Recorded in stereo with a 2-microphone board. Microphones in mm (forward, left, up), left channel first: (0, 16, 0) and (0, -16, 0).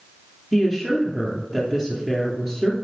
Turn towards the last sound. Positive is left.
turn(degrees=-15)  # may be behind; listen again after turning